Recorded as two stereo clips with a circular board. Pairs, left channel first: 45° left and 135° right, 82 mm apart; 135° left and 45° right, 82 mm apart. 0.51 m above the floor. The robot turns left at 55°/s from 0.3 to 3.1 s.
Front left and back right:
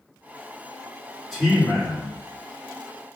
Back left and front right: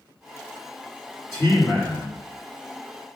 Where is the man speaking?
130° left, 1.7 m; by 2.2 s 80° left, 1.7 m.